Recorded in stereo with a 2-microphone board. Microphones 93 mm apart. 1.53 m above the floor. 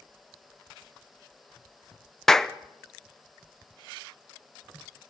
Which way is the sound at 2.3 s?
5° left (ahead or behind).